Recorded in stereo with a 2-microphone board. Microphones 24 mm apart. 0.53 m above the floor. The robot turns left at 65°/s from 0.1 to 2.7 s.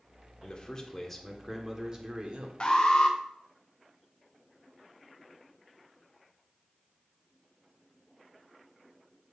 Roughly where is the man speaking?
Ahead left.